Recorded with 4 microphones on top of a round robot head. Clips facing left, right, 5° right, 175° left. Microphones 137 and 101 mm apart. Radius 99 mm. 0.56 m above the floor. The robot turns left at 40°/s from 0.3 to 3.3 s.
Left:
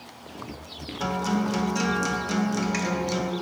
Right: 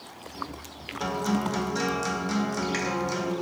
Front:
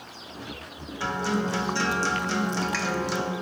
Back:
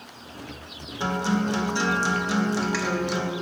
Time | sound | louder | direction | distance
1.0 | a guitar | left 1 dB, back 2 dB | 170° left | 0.8 m